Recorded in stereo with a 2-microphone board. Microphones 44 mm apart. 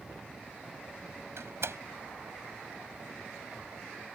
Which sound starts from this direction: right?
A door slam, at 1.4 s.